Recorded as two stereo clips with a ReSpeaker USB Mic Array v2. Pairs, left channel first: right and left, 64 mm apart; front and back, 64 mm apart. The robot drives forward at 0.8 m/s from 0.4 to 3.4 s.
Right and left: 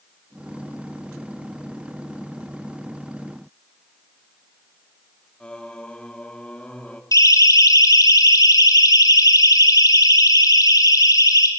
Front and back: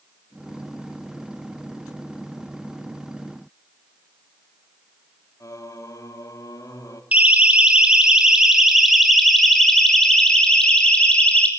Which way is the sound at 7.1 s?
115° right.